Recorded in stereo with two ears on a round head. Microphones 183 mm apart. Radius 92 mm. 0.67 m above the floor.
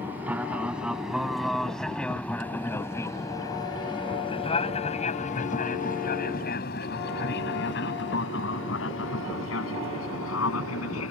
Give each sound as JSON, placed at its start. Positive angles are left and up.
{"t": 0.0, "sound": "an aircraft", "side_deg": -10}